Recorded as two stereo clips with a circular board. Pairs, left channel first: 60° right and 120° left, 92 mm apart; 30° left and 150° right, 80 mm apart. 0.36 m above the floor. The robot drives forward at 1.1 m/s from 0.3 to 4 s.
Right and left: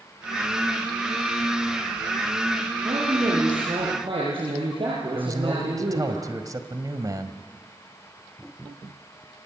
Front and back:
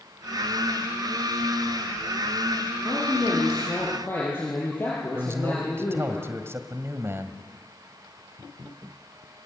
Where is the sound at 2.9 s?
85° left, 7.5 m; by 6.1 s 95° left, 7.5 m.